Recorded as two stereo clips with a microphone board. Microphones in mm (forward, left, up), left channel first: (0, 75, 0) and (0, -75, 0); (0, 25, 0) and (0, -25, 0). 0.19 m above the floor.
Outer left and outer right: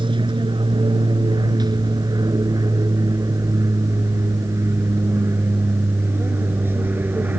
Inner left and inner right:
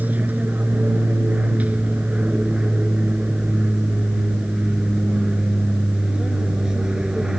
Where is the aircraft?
30° right (ahead or behind); by 7.4 s 10° right (ahead or behind).